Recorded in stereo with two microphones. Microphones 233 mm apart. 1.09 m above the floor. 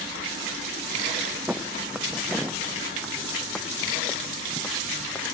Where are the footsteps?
5° right (ahead or behind); by 5.2 s 10° left (ahead or behind).